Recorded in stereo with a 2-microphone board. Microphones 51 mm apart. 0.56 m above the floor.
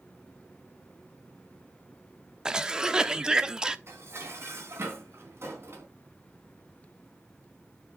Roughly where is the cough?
Centre.